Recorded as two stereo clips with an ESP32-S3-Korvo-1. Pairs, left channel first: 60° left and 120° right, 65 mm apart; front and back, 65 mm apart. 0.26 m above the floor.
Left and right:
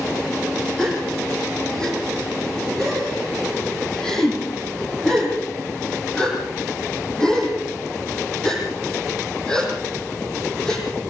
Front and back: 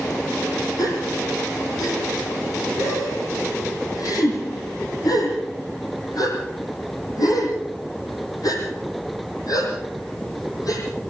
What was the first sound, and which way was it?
A gasp, 20° right.